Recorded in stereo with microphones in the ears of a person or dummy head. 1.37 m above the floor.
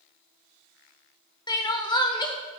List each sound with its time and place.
1.5 s crying: 20° left (ahead or behind), 0.7 m